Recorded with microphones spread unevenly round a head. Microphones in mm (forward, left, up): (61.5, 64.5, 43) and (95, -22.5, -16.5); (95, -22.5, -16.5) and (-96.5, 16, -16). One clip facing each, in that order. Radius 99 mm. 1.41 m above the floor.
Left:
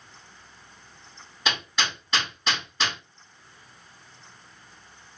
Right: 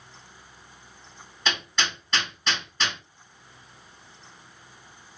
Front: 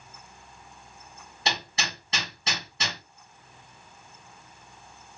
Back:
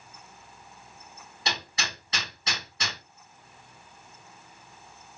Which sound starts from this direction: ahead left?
Hammering, at 1.4 s.